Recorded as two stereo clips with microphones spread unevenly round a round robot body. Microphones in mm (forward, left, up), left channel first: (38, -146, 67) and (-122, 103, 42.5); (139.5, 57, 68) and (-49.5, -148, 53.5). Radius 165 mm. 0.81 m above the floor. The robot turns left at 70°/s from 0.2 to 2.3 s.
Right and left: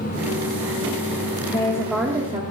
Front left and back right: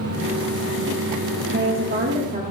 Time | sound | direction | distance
1.5 | a woman speaking | 120° right | 1.2 m